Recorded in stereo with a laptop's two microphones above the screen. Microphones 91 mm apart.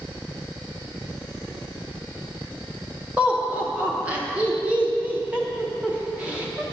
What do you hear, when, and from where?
3.2 s laughter: 15° right (ahead or behind), 1.0 m